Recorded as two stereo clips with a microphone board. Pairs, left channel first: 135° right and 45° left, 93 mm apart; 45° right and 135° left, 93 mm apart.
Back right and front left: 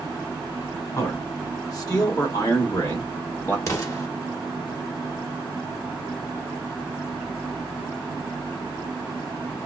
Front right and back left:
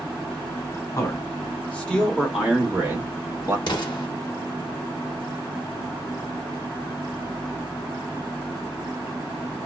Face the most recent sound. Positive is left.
turn(degrees=-80)